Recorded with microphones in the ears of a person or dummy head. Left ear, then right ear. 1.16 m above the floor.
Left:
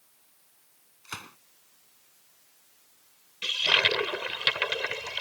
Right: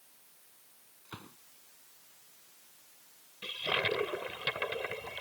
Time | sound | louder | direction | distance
1.1 | a gunshot | left 10 dB | 65° left (ahead or behind) | ?
3.4 | a toilet flushing | left 9 dB | 50° left (ahead or behind) | ?